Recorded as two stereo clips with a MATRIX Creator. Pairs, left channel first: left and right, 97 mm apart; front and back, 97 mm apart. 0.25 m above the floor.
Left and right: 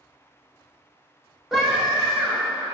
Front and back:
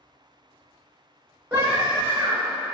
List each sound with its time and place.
1.5 s a scream: straight behind, 0.9 m